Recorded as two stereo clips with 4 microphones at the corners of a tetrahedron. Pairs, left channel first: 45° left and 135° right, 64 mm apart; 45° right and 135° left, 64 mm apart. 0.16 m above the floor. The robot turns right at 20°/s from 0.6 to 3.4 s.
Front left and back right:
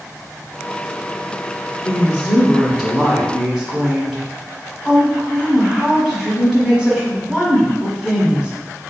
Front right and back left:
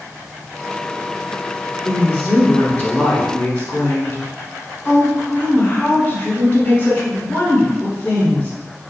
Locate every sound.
1.8 s a woman speaking: 90° right, 1.1 m; by 8.5 s 60° right, 1.1 m